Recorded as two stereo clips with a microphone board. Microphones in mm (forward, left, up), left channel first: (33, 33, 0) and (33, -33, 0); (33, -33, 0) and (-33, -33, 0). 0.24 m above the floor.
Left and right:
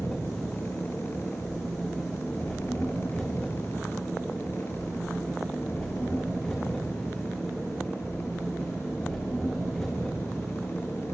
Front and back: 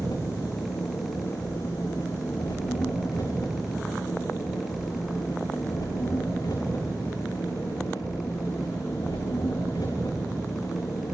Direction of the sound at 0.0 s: Straight ahead.